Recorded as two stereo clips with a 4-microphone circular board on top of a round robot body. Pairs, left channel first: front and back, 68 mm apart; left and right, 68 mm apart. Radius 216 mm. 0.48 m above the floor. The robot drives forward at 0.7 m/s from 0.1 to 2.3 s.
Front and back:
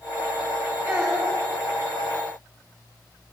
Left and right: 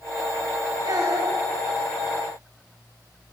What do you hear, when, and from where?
0.8 s a child speaking: 120° right, 5 m; by 1.4 s 125° right, 5.5 m